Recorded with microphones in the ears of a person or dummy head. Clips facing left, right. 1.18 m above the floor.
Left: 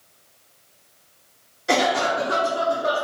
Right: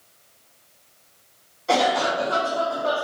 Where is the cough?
20° left (ahead or behind), 0.6 m.